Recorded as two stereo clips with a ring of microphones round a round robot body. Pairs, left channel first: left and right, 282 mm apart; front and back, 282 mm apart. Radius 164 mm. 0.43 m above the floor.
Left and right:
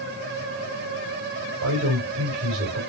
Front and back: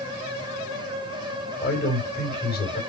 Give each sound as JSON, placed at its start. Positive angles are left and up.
{"t": 1.6, "sound": "a man speaking", "azimuth_deg": -55, "distance_m": 3.0}